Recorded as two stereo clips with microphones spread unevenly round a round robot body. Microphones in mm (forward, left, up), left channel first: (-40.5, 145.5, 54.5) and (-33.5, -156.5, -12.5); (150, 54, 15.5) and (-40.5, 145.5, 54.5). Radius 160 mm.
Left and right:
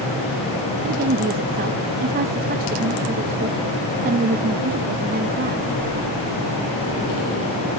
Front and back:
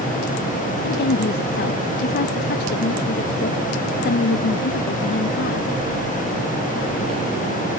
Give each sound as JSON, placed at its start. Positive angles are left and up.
{"t": 0.8, "sound": "a woman speaking", "azimuth_deg": -40, "distance_m": 0.5}